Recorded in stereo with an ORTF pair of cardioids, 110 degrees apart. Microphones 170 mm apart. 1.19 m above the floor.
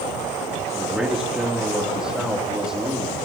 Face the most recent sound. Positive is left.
turn(degrees=-5)